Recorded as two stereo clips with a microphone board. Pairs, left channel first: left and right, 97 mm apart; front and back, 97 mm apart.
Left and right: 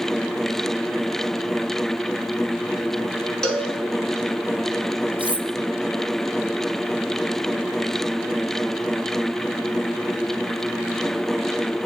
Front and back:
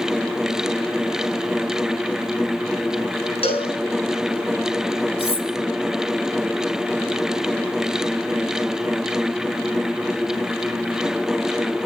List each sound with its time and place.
3.4 s a cowbell: 5° left, 7.5 m
5.2 s cutlery clinking: 15° right, 4.5 m